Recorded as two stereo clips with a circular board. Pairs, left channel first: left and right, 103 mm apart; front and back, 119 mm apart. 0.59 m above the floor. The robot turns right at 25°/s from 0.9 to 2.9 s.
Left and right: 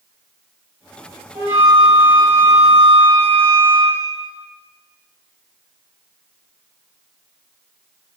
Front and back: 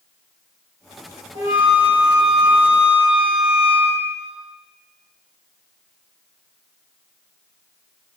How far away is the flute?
About 1.3 m.